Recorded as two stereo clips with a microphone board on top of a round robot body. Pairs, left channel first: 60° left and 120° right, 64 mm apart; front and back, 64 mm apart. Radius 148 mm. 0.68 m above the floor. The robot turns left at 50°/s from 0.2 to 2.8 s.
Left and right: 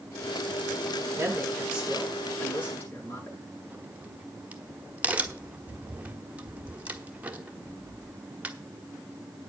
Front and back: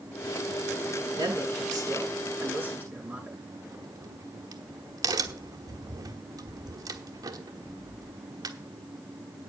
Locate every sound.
1.2 s a woman speaking: 165° right, 9 m; by 3.4 s 115° left, 9 m
3.7 s a crack: 175° left, 1.6 m